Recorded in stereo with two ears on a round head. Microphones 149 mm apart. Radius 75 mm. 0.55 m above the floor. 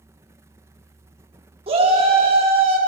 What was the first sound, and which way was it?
A shout, 35° right (ahead or behind).